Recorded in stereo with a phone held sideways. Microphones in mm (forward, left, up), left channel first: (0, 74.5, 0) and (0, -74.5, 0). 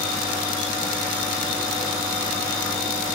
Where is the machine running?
10° left (ahead or behind), 1.8 m.